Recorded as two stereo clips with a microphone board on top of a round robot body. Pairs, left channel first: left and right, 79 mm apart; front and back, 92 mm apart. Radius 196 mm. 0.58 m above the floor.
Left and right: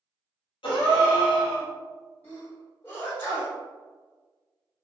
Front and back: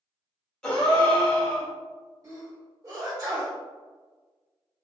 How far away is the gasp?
About 1.1 m.